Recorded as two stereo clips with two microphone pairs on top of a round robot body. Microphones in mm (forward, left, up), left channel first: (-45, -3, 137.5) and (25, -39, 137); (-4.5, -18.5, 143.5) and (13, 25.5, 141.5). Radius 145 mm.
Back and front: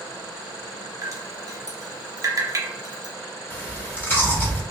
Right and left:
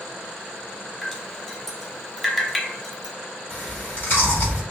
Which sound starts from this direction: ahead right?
Dripping, at 1.0 s.